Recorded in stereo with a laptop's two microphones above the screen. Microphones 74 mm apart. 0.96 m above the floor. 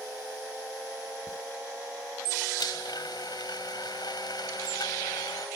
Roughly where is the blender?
Left.